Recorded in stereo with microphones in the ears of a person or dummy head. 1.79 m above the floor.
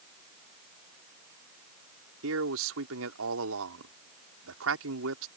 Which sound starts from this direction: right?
A man speaking, at 2.2 s.